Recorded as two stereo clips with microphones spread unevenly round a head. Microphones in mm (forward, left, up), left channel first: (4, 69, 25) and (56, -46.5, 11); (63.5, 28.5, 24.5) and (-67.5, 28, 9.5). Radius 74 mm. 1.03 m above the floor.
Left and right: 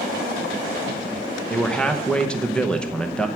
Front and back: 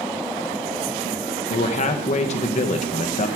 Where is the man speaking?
30° left, 0.9 m.